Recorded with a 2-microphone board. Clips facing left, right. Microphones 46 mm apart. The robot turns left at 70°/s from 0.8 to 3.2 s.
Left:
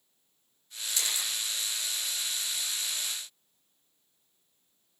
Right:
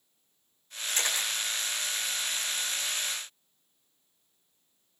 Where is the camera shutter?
40° right (ahead or behind), 7.5 m; by 1.3 s 65° right (ahead or behind), 7.5 m.